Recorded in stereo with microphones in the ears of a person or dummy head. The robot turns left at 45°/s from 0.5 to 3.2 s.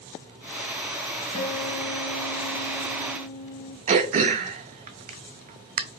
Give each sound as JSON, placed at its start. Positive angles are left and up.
{"t": 1.3, "sound": "a guitar", "azimuth_deg": 130, "distance_m": 1.8}
{"t": 3.9, "sound": "throat clearing", "side_deg": -40, "distance_m": 0.7}